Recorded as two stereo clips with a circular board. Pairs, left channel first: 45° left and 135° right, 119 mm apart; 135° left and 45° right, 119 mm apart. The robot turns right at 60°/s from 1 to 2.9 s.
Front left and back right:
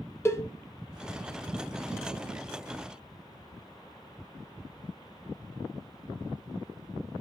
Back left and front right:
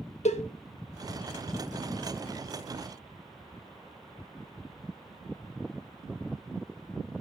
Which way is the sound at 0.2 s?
115° left.